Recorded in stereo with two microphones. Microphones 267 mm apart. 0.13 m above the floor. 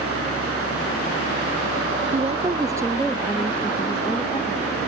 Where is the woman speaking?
25° right (ahead or behind); by 4.9 s 20° left (ahead or behind).